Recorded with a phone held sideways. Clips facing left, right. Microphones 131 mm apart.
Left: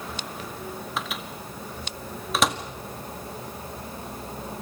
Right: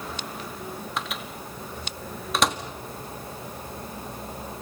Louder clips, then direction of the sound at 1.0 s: Even; centre (ahead or behind).